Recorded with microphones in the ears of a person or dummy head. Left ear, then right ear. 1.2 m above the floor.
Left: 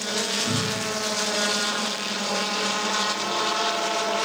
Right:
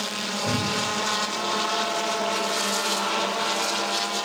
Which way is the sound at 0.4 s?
35° left (ahead or behind).